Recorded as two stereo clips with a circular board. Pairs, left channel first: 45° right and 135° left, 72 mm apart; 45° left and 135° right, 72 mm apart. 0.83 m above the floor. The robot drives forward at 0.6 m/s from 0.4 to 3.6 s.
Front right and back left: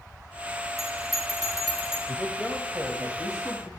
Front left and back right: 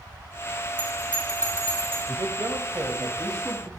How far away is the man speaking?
About 1.2 m.